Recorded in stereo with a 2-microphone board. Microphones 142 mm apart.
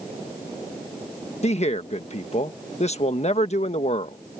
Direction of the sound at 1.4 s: 50° left (ahead or behind).